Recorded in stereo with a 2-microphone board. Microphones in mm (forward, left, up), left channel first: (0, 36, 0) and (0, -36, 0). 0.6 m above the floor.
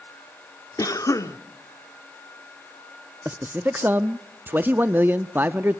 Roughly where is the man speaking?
Right.